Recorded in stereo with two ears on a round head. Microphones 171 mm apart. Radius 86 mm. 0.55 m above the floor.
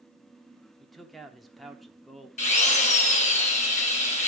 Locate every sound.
0.8 s a man speaking: centre (ahead or behind), 0.9 m
2.4 s a drill: 40° left (ahead or behind), 2.5 m